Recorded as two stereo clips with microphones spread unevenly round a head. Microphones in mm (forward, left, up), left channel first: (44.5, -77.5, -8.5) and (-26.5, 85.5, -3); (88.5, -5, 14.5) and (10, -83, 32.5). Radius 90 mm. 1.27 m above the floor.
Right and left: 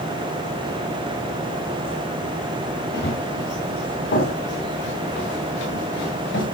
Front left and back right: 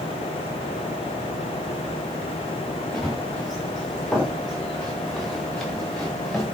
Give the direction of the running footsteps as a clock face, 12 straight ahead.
1 o'clock.